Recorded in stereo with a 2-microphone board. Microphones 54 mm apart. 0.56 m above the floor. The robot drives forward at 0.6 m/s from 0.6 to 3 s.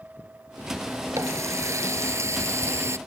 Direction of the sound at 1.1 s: 65° right (ahead or behind).